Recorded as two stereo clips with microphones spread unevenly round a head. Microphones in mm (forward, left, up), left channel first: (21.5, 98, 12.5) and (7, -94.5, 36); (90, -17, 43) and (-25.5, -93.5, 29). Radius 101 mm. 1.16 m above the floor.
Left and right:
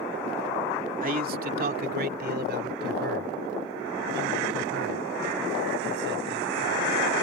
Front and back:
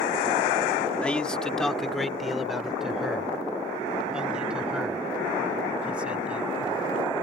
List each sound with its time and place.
1.0 s a man speaking: 50° right; by 6.9 s 65° right